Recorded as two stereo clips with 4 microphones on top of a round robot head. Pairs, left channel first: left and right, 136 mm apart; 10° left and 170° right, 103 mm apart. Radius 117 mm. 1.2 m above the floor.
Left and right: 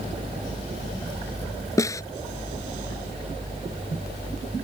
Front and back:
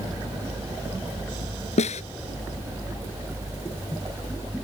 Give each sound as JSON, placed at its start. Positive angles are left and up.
{"t": 1.8, "sound": "a snare drum", "azimuth_deg": 20}